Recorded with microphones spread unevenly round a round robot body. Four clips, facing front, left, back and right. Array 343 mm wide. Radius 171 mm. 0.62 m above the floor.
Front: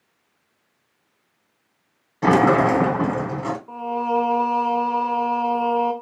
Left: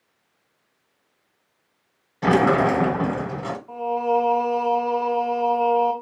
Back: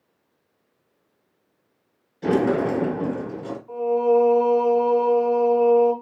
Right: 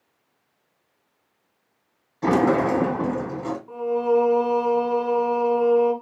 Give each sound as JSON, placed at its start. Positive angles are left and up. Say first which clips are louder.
{"t": 2.2, "sound": "a sliding door", "louder": "left 1 dB, front 5 dB", "azimuth_deg": 20, "distance_m": 1.2}
{"t": 3.7, "sound": "singing", "louder": "right 1 dB, back 6 dB", "azimuth_deg": -35, "distance_m": 2.5}